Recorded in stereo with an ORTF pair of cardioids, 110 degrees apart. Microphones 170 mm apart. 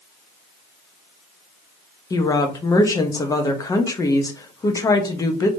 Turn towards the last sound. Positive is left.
turn(degrees=20)